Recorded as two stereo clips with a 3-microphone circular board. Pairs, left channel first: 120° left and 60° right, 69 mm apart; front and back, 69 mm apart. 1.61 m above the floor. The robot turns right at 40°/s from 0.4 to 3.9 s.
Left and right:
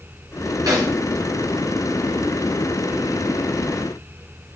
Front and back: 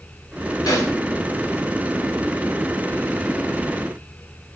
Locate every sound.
0.7 s a snare drum: 30° right, 0.9 m; by 0.9 s 20° right, 0.9 m